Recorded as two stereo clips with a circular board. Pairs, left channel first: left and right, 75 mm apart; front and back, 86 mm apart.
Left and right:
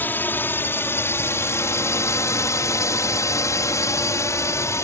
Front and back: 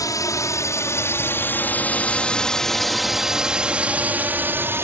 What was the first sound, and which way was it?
A drone, 30° left.